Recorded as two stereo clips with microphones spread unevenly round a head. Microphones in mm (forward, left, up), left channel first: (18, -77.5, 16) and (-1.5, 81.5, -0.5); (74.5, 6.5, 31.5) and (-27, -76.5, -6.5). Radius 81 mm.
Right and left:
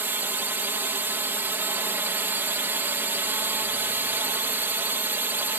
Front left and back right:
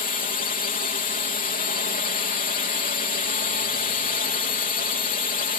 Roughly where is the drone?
Ahead.